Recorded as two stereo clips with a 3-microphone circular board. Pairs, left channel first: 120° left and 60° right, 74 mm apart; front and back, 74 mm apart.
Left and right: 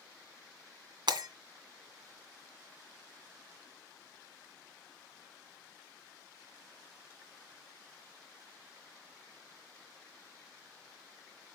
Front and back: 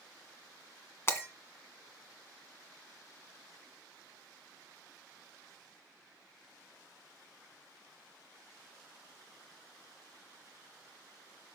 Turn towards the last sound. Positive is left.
turn(degrees=-55)